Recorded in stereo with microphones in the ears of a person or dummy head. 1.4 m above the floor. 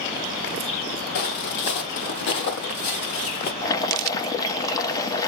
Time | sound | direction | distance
1.1 | footsteps | 60° left (ahead or behind) | 3 m
3.6 | boiling | 20° left (ahead or behind) | 1.1 m